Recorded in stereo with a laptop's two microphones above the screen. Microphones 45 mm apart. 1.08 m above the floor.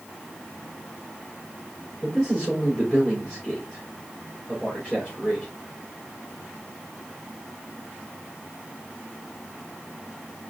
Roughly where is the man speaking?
Left.